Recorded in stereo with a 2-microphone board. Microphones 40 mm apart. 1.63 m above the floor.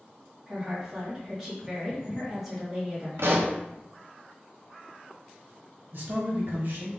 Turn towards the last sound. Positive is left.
turn(degrees=-55)  # may be behind; listen again after turning